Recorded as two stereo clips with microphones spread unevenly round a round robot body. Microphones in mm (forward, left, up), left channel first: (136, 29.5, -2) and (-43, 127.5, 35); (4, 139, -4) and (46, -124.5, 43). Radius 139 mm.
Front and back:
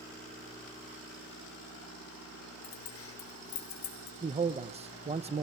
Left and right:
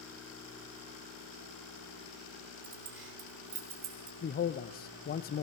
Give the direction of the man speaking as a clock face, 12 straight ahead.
9 o'clock.